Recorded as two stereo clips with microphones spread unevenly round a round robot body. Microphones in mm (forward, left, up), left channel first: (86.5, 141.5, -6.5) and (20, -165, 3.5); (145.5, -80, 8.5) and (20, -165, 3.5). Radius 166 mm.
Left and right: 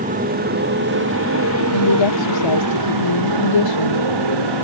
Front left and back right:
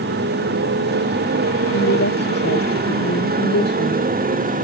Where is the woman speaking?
70° left.